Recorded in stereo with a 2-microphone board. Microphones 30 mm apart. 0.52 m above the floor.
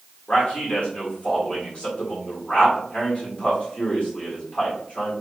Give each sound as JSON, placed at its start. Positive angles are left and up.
{"t": 0.3, "sound": "a man speaking", "side_deg": 40, "distance_m": 1.6}